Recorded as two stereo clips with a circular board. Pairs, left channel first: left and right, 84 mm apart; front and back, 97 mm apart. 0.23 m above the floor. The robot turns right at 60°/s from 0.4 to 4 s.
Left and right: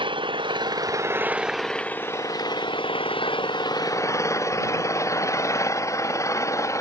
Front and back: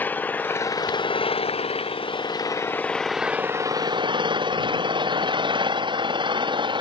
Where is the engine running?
70° right; by 6.8 s 145° left.